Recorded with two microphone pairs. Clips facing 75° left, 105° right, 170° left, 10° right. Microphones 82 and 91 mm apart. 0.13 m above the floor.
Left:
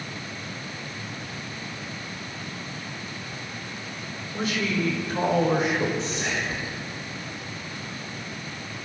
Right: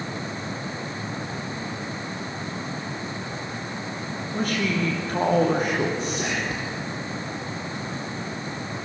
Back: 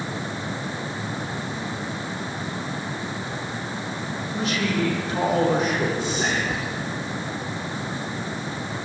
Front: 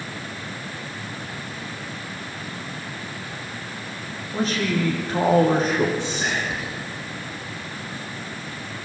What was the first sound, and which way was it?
A man speaking, 60° right.